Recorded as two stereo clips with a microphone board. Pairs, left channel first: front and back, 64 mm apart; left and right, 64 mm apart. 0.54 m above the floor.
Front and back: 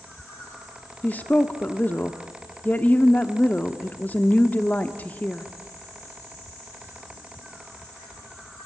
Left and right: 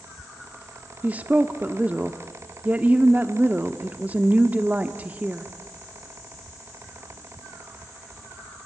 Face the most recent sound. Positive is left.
turn(degrees=-40)